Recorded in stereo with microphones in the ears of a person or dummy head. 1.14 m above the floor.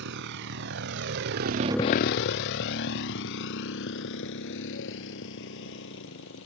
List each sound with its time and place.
0.0 s a motorcycle: 65° right (ahead or behind); by 6.5 s 70° left (ahead or behind)